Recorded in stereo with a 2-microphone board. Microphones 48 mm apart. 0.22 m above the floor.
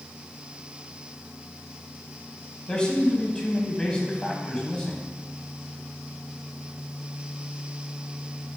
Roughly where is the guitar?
I don't hear a guitar.